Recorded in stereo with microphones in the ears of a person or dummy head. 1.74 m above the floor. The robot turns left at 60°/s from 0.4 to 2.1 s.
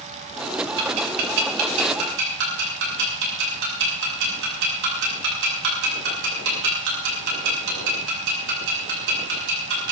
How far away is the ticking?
About 6 m.